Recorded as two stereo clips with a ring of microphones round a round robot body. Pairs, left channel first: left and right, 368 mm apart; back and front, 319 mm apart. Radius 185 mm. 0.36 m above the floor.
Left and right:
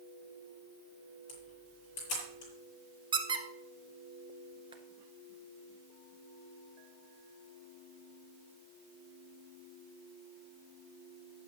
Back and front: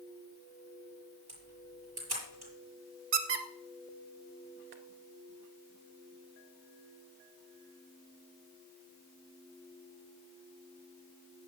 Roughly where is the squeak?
Ahead.